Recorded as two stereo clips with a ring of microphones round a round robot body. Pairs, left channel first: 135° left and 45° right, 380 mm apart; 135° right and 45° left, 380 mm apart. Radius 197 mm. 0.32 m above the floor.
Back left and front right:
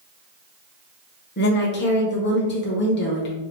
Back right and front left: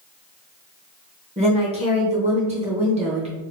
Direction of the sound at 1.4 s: 105° left.